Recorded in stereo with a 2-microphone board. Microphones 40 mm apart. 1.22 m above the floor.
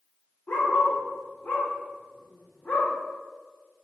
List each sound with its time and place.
0.5 s a dog barking: 55° left (ahead or behind), 1.6 m